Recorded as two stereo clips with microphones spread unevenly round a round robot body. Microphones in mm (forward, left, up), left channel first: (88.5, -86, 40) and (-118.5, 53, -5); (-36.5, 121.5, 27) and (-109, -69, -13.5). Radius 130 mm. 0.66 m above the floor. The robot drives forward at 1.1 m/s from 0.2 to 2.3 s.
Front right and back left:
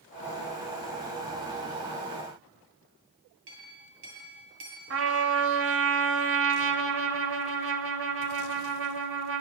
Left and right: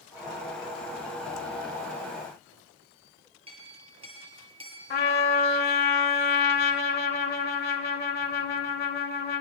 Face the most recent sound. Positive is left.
turn(degrees=110)